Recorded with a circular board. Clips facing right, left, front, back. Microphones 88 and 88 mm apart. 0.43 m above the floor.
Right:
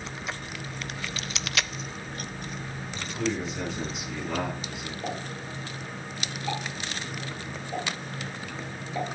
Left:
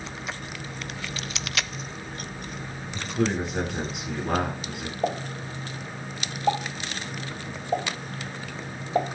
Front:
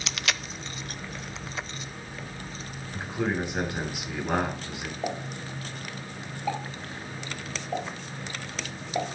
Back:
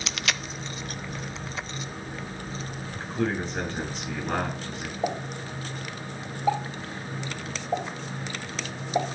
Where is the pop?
110° left, 3 m.